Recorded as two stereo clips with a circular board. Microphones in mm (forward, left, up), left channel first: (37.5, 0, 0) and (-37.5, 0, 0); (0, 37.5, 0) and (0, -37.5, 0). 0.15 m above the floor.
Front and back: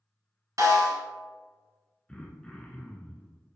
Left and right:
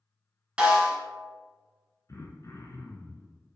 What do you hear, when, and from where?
0.6 s a snare drum: 170° right, 1.1 m
2.1 s throat clearing: 75° left, 0.5 m